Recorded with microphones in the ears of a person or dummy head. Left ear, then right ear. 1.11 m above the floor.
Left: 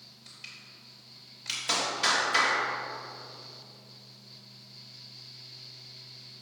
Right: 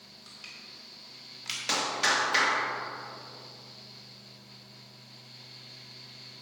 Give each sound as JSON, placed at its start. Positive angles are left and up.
{"t": 0.3, "sound": "crushing", "side_deg": -15, "distance_m": 3.0}
{"t": 1.7, "sound": "a clap", "side_deg": -15, "distance_m": 1.7}